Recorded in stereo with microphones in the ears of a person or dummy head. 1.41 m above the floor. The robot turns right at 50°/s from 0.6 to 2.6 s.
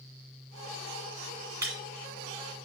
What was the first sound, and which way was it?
Breaking glass, 15° right (ahead or behind).